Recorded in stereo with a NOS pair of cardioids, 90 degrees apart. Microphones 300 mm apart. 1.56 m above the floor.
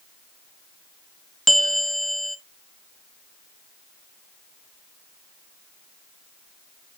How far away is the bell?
About 0.6 m.